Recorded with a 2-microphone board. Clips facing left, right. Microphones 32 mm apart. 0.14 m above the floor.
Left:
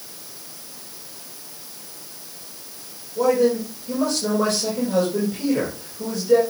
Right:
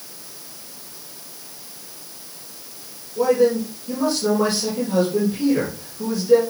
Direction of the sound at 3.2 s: 15° right (ahead or behind).